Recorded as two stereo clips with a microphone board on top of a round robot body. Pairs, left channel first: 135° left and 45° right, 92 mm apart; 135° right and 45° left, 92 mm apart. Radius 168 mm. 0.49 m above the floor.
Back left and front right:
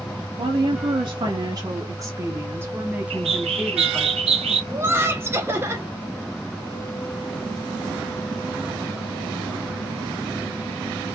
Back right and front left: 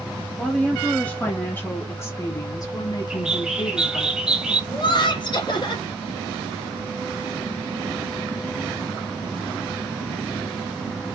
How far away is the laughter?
About 2.5 m.